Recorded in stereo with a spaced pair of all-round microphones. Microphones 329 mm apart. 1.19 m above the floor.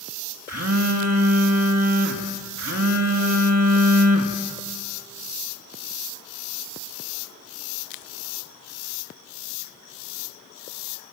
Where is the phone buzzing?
50° right (ahead or behind), 2 m.